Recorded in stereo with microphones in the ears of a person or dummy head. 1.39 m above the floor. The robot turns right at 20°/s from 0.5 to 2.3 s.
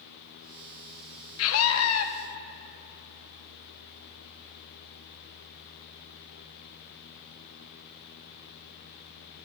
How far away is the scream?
About 0.9 m.